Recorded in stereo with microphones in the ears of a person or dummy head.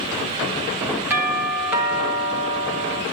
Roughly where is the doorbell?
Centre.